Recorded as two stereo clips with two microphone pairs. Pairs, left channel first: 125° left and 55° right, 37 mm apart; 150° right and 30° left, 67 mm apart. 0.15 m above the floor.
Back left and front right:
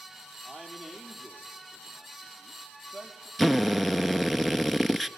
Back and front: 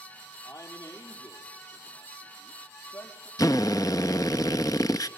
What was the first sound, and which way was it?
A man speaking, 150° right.